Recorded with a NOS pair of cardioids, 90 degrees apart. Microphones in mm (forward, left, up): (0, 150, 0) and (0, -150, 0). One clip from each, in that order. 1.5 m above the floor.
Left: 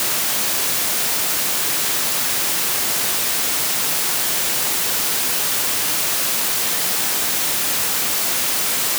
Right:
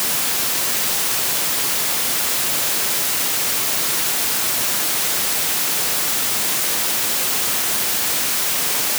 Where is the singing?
I don't hear singing.